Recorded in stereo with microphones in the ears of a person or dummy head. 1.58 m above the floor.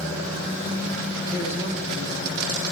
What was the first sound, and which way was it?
A man speaking, 55° left (ahead or behind).